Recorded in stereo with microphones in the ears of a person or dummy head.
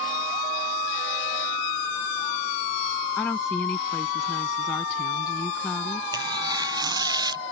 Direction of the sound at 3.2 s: 20° left (ahead or behind).